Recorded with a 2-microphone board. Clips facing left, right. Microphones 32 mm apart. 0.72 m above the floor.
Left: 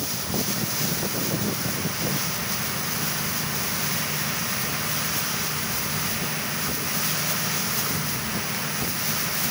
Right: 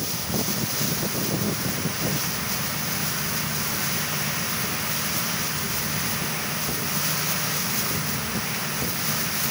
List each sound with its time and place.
Only background noise.